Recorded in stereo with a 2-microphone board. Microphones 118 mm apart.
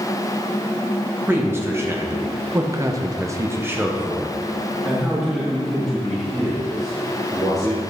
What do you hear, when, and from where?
1.3 s a man speaking: 20° right (ahead or behind), 1.2 m; by 7.8 s 5° left (ahead or behind), 2.5 m